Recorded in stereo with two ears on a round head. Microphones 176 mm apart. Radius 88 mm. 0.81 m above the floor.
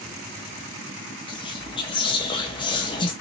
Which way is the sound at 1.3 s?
25° left (ahead or behind).